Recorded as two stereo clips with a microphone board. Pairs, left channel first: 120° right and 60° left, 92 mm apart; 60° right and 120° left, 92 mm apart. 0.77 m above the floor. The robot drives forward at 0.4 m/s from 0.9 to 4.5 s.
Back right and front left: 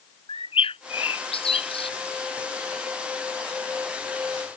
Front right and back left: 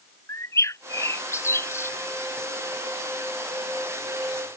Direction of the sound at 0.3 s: 120° right.